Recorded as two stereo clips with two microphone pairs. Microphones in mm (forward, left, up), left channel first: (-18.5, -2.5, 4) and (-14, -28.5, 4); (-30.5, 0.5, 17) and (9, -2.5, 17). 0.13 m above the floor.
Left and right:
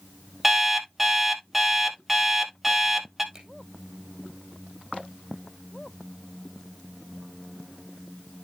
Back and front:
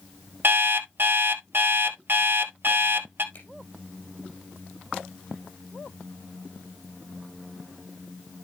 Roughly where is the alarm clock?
Ahead.